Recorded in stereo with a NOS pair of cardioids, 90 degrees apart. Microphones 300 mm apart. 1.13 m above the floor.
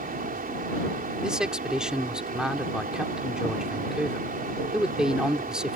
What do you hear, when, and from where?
0.0 s a fan: 30° right
1.2 s a man speaking: straight ahead